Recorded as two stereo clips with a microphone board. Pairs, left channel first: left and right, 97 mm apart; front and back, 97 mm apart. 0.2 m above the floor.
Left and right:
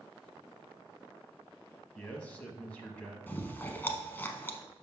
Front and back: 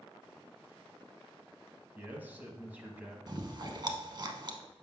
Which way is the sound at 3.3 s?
155° left.